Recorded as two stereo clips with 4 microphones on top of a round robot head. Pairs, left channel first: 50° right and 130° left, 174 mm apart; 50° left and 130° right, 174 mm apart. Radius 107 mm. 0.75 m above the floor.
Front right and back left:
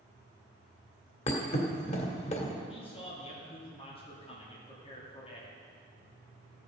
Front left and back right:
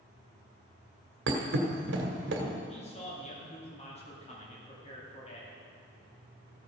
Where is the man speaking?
5° left, 2 m.